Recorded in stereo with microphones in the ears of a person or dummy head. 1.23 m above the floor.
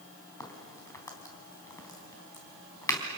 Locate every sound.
0.4 s a crack: 15° left (ahead or behind), 3.5 m